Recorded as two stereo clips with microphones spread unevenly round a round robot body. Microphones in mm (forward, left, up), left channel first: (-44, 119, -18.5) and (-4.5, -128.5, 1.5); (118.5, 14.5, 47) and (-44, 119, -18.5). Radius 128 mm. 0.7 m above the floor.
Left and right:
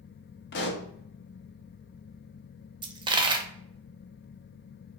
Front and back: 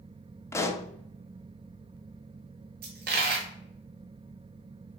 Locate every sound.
0.5 s a pop: 50° left, 0.7 m
2.8 s a dropped coin: 150° right, 0.7 m